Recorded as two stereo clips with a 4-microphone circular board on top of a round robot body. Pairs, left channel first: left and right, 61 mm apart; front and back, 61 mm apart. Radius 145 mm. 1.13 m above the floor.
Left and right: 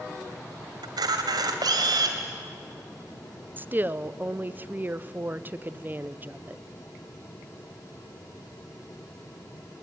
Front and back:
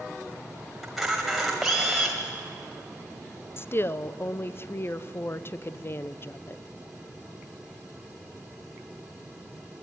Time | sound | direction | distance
0.8 | a camera shutter | 95° right | 1.4 m
3.6 | a woman speaking | 40° right | 0.9 m